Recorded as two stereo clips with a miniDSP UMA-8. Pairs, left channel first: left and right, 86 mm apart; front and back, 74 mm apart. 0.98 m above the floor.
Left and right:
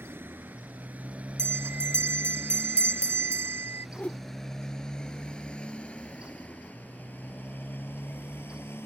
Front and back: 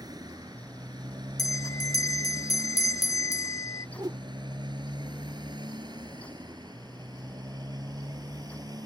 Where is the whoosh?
160° left.